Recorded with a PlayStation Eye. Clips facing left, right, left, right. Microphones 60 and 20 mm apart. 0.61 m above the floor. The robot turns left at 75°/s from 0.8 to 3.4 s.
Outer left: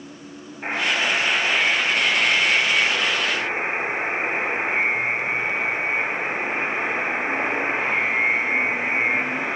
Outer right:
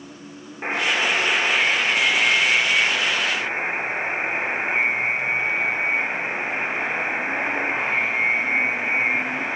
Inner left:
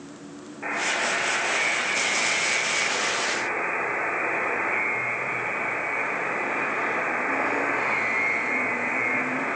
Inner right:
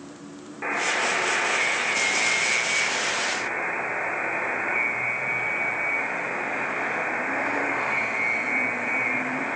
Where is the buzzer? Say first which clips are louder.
Outer right 1 dB, inner right 1 dB; 65° right, 1.2 m; by 9.6 s 100° left, 1.2 m.